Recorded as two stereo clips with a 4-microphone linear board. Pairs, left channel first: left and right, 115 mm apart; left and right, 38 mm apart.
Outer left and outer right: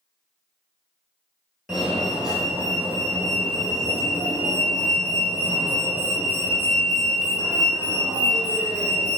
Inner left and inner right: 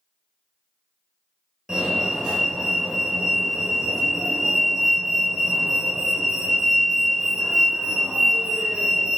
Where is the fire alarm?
5° right (ahead or behind), 2 m.